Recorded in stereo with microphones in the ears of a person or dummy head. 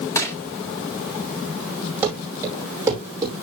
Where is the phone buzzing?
I don't hear a phone buzzing.